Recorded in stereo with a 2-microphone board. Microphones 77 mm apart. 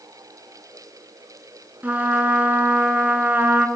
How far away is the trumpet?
About 0.6 m.